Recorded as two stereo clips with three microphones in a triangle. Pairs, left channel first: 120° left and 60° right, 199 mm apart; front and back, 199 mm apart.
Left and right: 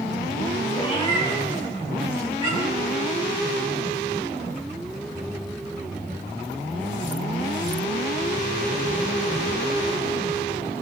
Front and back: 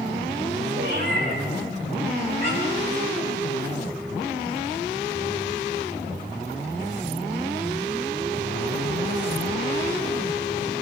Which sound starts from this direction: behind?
A cat meowing, at 0.8 s.